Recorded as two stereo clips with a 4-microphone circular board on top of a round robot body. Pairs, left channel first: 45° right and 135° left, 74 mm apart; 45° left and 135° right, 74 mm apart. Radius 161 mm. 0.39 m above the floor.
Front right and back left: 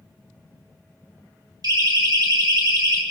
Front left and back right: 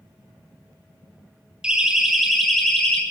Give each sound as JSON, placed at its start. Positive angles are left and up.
{"t": 1.6, "sound": "a siren", "azimuth_deg": 150, "distance_m": 2.5}